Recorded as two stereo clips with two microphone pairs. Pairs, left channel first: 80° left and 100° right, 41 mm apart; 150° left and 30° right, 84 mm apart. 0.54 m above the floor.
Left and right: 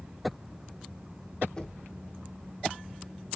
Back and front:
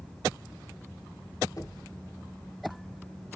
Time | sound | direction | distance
1.6 | knocking | 135° left | 1.2 m